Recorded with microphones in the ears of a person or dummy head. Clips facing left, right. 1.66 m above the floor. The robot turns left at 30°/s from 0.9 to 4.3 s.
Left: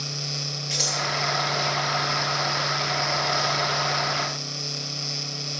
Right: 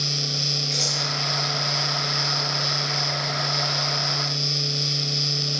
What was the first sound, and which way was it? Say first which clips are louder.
Scissors: right 1 dB; 5° left (ahead or behind).